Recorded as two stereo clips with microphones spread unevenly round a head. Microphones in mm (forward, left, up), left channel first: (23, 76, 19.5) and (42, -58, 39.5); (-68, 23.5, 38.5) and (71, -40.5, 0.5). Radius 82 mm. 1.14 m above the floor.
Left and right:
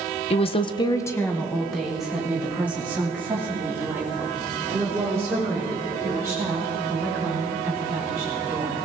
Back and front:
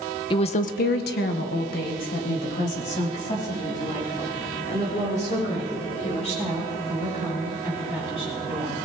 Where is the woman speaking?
90° left, 0.8 m; by 8.8 s 155° right, 8 m.